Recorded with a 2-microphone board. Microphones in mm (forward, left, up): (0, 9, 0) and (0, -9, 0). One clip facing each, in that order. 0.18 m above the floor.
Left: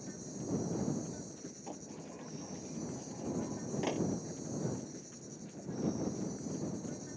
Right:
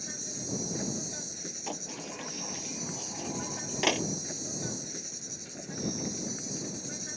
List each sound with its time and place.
0.0 s an insect: 60° right (ahead or behind)
1.7 s a sliding door: 75° right (ahead or behind)